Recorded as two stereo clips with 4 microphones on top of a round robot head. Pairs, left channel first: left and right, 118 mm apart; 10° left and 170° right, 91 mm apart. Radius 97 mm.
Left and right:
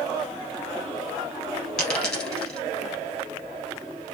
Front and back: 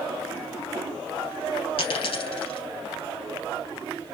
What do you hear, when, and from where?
1.8 s a dropped coin: 5° left, 1.6 m